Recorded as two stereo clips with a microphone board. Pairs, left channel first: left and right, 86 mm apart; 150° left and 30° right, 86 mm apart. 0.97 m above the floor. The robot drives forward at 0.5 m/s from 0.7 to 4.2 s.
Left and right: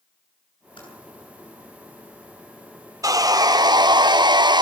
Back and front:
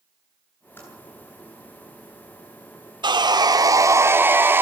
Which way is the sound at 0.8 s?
85° left.